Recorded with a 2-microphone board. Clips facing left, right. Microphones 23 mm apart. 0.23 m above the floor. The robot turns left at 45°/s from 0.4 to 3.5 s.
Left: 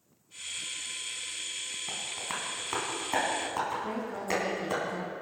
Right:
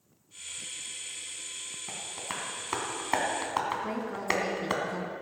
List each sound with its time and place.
1.9 s tapping: 10° left (ahead or behind), 2.5 m; by 4.7 s 40° right (ahead or behind), 2.5 m
3.7 s a woman speaking: 30° right (ahead or behind), 2 m